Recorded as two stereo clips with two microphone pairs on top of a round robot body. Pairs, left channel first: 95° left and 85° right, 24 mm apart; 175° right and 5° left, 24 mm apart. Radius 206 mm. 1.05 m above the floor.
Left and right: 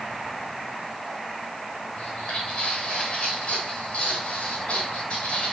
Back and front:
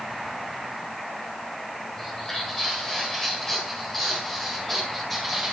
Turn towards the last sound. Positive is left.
turn(degrees=100)